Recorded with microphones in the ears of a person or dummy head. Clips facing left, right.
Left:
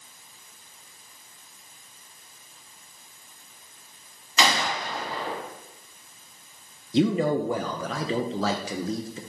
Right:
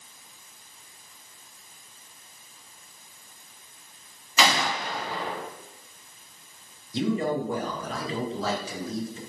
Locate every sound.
4.4 s a gunshot: 10° right (ahead or behind), 2 m
6.9 s a man speaking: 55° left (ahead or behind), 0.6 m